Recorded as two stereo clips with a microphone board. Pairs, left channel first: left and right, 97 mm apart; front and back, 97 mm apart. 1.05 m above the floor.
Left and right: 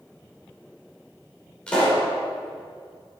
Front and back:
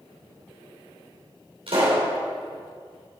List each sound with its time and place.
1.7 s a pop: 170° left, 5 m